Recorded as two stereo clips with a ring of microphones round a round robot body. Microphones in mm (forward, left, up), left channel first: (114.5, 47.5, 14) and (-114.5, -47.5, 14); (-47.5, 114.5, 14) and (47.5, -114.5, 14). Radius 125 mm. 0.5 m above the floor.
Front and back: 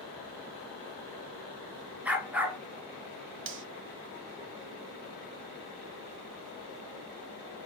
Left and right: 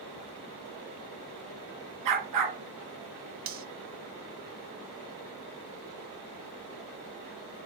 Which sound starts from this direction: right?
A dog barking, at 2.0 s.